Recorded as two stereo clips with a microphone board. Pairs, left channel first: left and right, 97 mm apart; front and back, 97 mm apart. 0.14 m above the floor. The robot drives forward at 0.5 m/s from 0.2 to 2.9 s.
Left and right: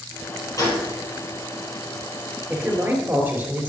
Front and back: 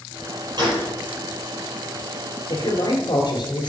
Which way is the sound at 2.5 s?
20° right.